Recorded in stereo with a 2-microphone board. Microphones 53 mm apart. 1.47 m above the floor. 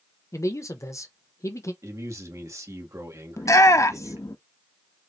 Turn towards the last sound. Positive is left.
turn(degrees=80)